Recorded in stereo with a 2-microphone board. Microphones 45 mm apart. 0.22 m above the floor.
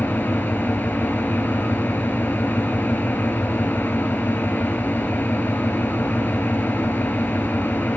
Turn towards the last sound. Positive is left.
turn(degrees=55)  # may be behind; listen again after turning